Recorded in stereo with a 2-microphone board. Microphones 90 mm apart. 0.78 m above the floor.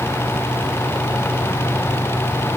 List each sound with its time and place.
Only background noise.